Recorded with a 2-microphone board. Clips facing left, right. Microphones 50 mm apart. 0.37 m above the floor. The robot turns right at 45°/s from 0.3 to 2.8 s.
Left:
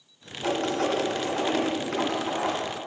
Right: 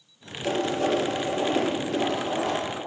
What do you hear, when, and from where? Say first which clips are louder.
0.4 s writing: right 1 dB; 50° left (ahead or behind), 1.8 m; by 2.6 s 30° left (ahead or behind), 1.8 m